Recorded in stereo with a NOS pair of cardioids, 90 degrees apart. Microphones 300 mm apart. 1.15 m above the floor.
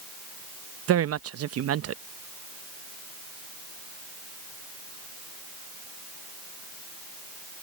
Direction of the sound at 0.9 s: 55° right.